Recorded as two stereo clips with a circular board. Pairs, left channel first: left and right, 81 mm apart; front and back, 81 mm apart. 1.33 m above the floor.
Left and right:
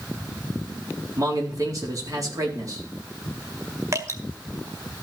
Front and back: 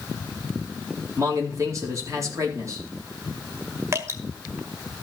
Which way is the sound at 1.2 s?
130° right.